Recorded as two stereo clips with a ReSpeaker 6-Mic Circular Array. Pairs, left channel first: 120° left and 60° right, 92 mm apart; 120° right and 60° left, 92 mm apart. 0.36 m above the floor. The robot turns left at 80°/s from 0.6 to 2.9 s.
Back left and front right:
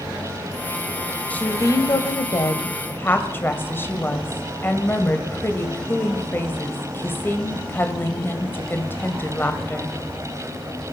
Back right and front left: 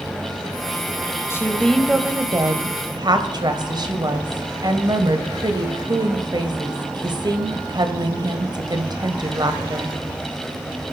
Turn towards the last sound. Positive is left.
turn(degrees=60)